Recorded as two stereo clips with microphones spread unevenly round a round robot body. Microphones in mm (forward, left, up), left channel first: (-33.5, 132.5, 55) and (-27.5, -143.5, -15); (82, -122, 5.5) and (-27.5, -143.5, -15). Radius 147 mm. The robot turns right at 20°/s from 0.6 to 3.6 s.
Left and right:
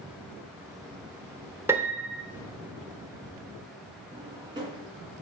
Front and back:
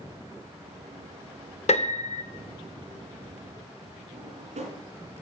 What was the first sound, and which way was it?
A piano, 10° right.